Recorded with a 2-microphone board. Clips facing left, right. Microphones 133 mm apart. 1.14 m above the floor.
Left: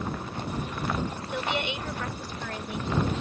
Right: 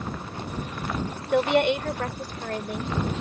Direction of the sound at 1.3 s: 65° right (ahead or behind).